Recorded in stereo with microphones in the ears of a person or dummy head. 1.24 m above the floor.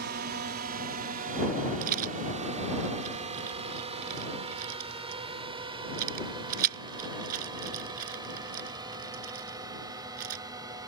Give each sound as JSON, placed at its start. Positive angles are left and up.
{"t": 0.0, "sound": "a drone", "side_deg": -55}
{"t": 1.8, "sound": "a rattle", "side_deg": -55}